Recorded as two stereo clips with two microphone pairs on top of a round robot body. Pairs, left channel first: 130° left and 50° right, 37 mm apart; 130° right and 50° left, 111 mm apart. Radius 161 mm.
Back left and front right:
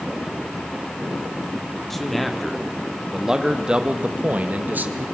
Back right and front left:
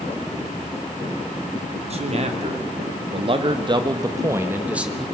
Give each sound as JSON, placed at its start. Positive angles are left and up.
{"t": 1.9, "sound": "a man speaking", "azimuth_deg": 50, "distance_m": 3.0}